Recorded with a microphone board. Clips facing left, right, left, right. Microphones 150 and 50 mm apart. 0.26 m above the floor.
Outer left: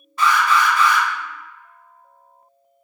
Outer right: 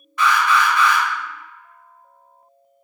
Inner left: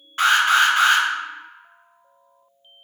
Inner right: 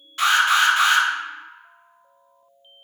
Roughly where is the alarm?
Left.